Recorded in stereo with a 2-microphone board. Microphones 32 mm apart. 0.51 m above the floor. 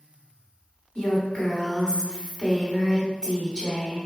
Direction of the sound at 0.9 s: 30° left (ahead or behind).